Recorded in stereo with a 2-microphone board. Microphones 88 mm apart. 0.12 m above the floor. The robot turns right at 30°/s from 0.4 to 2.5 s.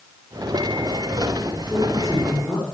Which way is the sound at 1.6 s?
15° left (ahead or behind).